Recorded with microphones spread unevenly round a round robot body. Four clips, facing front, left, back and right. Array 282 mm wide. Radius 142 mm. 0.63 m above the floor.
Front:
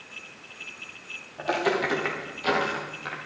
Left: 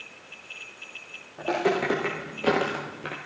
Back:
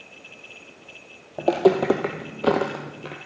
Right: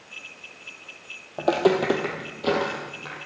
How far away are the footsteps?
About 1.2 m.